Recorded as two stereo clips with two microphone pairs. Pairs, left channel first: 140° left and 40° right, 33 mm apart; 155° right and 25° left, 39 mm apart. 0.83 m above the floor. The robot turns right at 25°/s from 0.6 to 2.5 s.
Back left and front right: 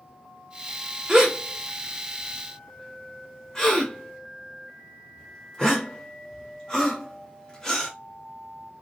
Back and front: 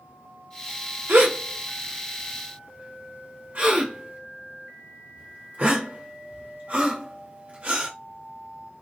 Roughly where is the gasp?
Ahead left.